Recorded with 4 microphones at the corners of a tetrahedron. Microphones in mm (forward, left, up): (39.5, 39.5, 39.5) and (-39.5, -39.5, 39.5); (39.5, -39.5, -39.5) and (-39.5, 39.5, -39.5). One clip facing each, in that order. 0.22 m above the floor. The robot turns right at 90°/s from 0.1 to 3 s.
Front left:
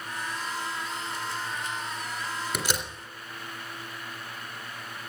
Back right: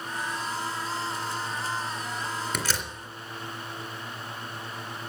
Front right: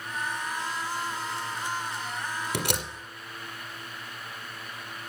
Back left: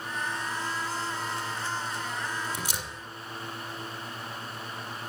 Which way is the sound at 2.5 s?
40° right.